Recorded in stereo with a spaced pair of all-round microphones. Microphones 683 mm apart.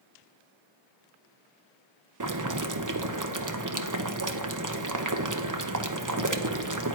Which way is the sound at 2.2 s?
30° right (ahead or behind).